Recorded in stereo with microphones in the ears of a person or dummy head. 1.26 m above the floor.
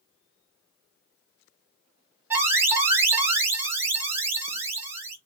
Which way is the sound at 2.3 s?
15° right (ahead or behind).